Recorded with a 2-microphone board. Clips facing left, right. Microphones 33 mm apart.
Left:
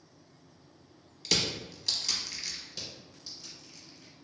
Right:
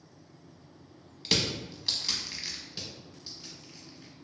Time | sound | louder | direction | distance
1.2 | crushing | right 1 dB | 20° right (ahead or behind) | 0.6 m
2.7 | crushing | right 1 dB | 20° right (ahead or behind) | 1.8 m